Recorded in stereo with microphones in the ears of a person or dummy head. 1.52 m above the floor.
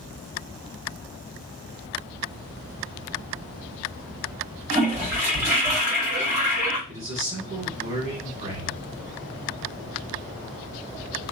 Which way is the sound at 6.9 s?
30° right (ahead or behind).